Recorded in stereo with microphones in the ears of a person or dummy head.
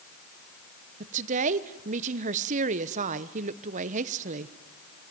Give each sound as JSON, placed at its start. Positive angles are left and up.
{"t": 1.0, "sound": "a woman speaking", "side_deg": -40, "distance_m": 0.9}